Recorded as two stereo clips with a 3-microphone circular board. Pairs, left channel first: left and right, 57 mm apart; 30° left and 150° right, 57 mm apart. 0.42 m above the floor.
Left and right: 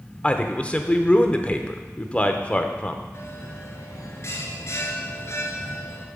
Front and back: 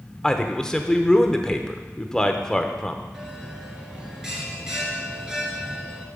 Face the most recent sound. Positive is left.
turn(degrees=130)